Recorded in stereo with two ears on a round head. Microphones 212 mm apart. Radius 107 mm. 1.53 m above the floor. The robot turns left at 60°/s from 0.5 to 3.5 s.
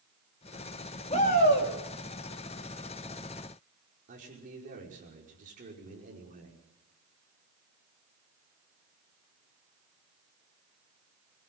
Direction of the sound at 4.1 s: 35° right (ahead or behind).